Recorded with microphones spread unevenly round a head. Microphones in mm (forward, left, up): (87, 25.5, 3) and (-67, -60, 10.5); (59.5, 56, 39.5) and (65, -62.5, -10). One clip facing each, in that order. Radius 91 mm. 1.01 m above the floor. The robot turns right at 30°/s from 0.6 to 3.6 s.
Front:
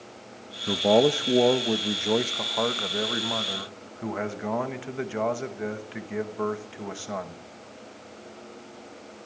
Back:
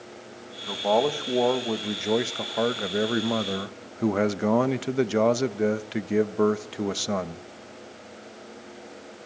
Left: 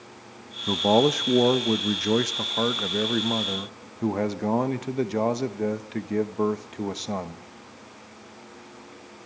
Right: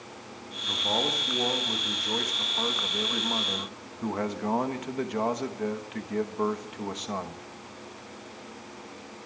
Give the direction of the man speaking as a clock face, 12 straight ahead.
9 o'clock.